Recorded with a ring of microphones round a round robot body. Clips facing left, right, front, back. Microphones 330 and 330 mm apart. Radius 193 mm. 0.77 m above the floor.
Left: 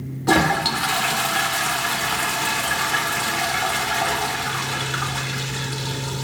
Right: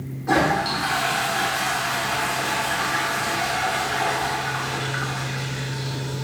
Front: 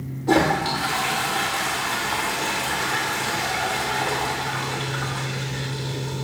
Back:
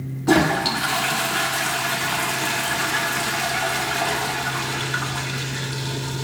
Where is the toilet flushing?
115° left, 0.8 m.